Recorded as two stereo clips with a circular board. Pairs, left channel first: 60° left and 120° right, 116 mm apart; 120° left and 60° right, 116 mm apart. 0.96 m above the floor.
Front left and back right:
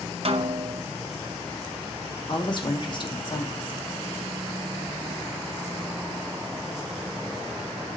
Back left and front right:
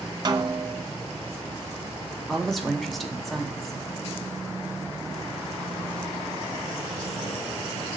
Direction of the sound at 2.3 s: 30° left.